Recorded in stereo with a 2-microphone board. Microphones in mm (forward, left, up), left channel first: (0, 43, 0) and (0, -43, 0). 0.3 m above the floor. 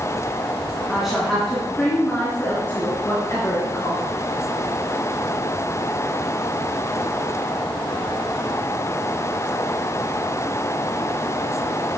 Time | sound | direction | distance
0.9 | a woman speaking | 5° right (ahead or behind) | 2.5 m